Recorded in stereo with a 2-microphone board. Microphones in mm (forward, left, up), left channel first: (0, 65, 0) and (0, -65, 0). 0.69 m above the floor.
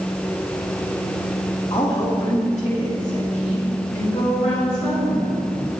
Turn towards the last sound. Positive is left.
turn(degrees=60)  # may be behind; listen again after turning